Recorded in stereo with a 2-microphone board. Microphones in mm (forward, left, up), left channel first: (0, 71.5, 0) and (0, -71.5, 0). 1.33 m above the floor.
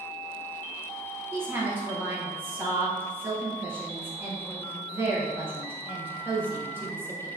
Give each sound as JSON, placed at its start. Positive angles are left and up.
{"t": 1.3, "sound": "a woman speaking", "side_deg": -15, "distance_m": 1.1}